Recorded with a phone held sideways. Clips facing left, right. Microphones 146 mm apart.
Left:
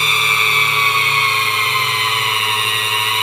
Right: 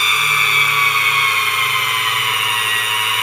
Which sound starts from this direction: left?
A machine running, at 0.0 s.